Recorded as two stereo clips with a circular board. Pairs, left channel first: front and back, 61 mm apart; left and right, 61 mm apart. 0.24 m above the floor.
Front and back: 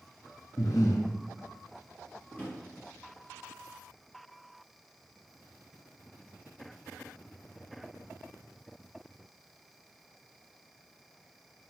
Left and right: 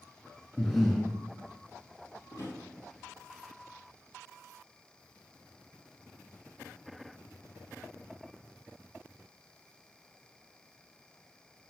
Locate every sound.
0.6 s breathing: straight ahead, 1.1 m
2.3 s a drawer: 65° left, 2.5 m